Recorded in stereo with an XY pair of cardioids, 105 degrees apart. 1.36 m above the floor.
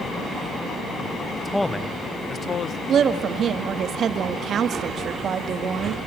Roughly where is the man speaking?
Ahead.